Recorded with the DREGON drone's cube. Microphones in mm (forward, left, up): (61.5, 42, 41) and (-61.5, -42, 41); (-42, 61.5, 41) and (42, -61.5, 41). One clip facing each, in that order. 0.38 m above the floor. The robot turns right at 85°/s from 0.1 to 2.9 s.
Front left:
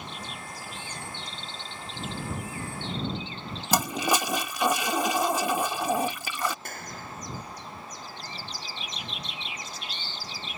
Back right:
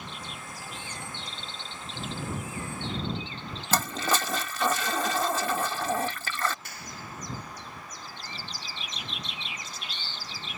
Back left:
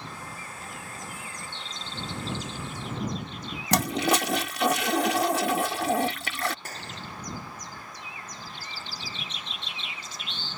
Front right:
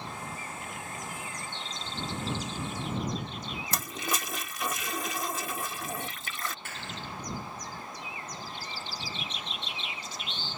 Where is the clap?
75° left.